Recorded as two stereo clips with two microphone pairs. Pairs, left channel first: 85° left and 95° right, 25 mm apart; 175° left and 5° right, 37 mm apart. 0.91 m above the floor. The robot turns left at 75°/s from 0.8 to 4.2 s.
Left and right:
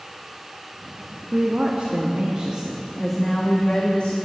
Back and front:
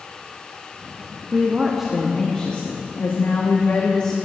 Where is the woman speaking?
45° right, 1.3 m; by 4.2 s 100° left, 1.3 m.